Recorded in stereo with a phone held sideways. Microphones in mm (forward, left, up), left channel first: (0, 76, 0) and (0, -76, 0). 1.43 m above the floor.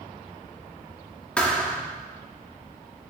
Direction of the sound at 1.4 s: 5° left (ahead or behind).